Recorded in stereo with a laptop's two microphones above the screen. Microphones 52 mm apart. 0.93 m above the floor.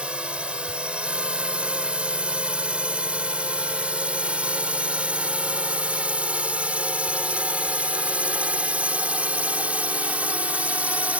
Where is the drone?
25° right (ahead or behind); by 11.2 s 30° right (ahead or behind).